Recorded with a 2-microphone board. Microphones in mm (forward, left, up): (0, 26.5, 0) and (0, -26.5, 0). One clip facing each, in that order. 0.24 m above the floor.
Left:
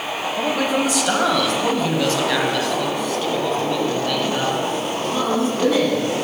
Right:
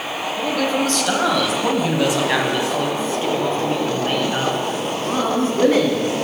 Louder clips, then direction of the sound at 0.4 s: Even; 20° left (ahead or behind).